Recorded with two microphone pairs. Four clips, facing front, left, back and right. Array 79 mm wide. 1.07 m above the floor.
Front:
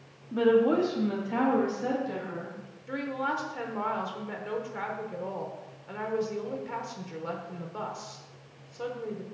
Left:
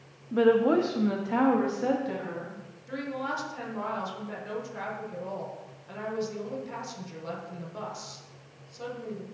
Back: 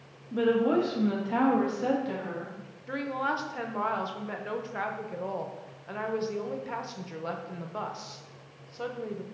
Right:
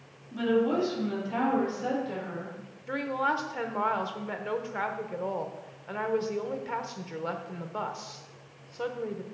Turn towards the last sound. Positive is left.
turn(degrees=-115)